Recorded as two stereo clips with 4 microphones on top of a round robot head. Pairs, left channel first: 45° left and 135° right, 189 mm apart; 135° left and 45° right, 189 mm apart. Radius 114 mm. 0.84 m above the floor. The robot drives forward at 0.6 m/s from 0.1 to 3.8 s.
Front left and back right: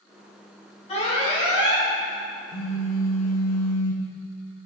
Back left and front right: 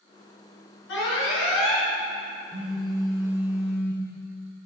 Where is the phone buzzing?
15° left, 1.1 m; by 4.0 s 50° left, 0.5 m.